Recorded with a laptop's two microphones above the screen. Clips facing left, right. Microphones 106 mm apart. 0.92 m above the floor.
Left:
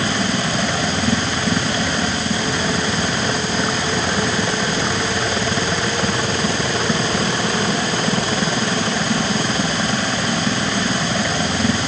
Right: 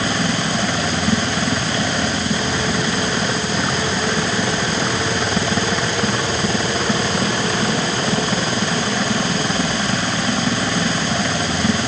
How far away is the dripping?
I don't hear dripping.